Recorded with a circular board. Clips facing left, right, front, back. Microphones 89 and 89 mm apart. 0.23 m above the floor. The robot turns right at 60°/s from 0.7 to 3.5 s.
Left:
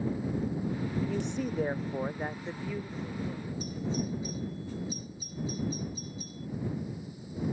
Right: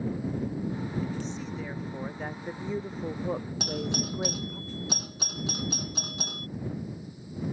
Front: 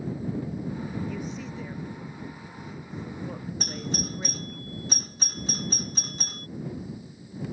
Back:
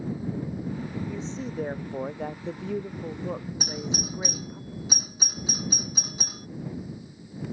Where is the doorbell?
95° right.